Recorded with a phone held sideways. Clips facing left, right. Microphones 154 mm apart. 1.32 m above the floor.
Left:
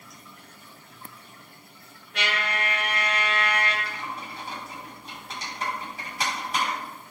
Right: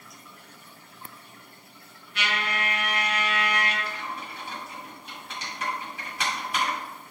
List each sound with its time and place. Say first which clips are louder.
2.1 s a trumpet: left 1 dB; 80° left, 3 m
3.9 s typing on a keyboard: even; 40° left (ahead or behind), 4 m